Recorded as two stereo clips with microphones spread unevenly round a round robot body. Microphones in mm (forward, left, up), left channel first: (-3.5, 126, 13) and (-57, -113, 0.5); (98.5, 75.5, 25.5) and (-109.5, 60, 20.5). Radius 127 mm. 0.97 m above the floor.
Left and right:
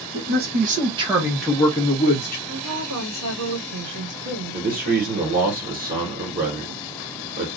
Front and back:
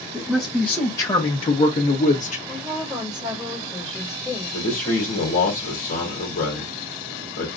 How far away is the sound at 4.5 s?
About 1.3 m.